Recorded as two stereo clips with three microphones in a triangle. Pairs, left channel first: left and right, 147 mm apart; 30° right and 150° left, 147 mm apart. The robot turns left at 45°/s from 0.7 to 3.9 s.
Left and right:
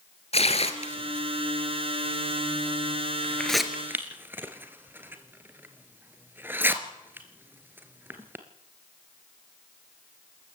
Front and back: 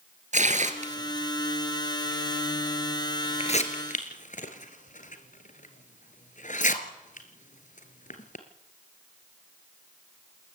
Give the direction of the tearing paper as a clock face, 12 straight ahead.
8 o'clock.